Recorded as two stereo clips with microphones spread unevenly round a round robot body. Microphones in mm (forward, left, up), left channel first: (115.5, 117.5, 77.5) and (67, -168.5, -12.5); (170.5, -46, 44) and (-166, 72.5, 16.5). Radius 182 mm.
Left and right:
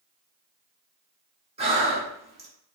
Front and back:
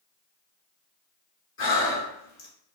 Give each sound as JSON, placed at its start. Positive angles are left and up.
{"t": 1.6, "sound": "breathing", "azimuth_deg": -65, "distance_m": 1.1}